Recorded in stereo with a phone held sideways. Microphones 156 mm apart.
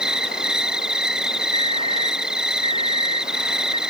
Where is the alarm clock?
35° right (ahead or behind).